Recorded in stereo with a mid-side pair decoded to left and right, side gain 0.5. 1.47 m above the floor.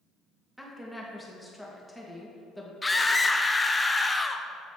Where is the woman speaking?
Straight ahead, 1.9 m.